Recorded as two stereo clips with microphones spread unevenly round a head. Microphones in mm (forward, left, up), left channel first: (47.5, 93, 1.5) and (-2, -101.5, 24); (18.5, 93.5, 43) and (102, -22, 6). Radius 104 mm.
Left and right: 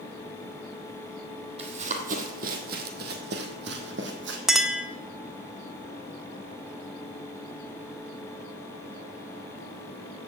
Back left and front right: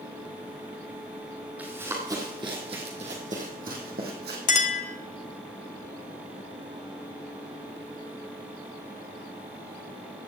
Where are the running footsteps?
150° right, 1.8 m; by 4.4 s 100° right, 2.5 m.